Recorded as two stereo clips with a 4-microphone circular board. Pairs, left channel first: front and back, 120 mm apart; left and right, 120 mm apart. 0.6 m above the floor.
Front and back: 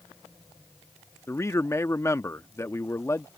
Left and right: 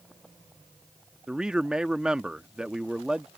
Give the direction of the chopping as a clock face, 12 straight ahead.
I don't hear chopping.